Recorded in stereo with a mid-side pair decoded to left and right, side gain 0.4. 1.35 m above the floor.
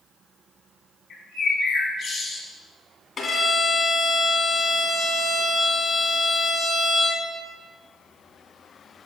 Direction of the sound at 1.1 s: 60° left.